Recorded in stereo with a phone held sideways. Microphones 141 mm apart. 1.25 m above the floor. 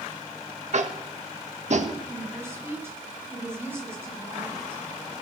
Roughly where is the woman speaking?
Centre.